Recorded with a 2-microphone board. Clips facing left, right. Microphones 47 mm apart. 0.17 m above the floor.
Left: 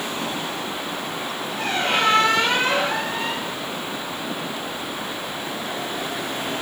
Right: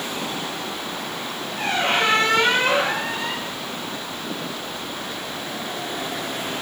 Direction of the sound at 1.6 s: 30° right (ahead or behind).